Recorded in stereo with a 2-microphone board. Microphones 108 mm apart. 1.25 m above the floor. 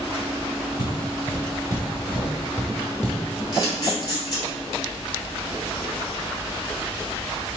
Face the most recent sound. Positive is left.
turn(degrees=40)  # may be behind; listen again after turning